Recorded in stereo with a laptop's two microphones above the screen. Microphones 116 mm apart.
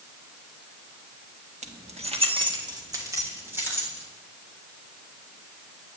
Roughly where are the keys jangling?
Right.